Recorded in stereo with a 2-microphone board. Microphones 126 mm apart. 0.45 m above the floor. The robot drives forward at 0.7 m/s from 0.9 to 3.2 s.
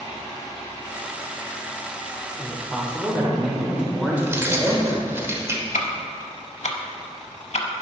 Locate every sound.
2.4 s a man speaking: 15° right (ahead or behind), 1.2 m; by 5.2 s 10° right (ahead or behind), 1.5 m
4.2 s keys jangling: 20° right (ahead or behind), 1.0 m
5.7 s ticking: 80° left, 0.7 m